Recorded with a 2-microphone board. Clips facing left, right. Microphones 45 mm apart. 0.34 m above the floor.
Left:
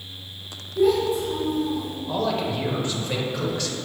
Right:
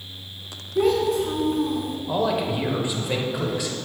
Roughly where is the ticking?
I don't hear ticking.